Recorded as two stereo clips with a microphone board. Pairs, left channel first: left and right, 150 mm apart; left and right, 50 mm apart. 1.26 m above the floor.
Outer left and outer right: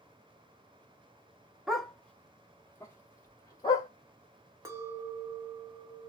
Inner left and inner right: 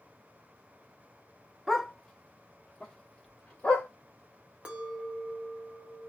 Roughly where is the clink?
Right.